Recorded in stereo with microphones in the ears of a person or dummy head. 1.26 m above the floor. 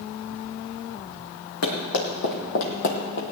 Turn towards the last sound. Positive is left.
turn(degrees=50)  # may be behind; listen again after turning